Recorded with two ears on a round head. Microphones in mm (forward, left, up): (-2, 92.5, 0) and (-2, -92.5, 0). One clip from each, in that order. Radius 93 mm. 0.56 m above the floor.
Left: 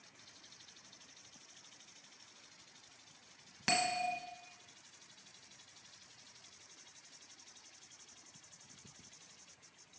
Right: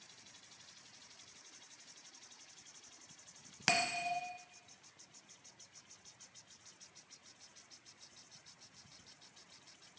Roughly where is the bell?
Right.